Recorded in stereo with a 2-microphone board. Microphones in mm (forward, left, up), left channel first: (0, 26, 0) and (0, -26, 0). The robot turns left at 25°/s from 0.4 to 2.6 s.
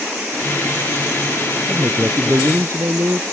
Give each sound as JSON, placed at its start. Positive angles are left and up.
{"t": 1.7, "sound": "a man speaking", "side_deg": -30}